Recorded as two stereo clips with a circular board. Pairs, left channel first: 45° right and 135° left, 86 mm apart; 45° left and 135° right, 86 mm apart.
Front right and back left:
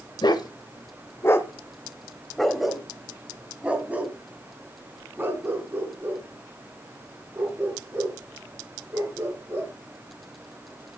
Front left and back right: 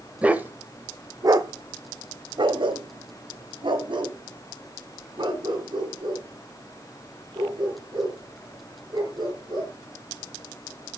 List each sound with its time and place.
0.2 s a dog barking: 60° right, 1.3 m; by 9.7 s 170° right, 6 m